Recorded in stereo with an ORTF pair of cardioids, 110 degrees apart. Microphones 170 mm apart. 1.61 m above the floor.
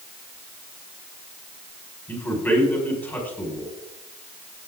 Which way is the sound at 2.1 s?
10° left.